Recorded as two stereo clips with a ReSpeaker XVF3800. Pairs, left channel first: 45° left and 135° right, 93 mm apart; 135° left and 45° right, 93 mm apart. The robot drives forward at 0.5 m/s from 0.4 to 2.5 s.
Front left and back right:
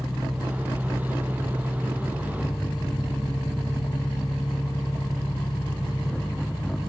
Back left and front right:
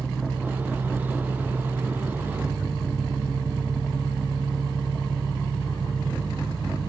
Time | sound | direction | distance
0.0 | an engine running | straight ahead | 5.5 m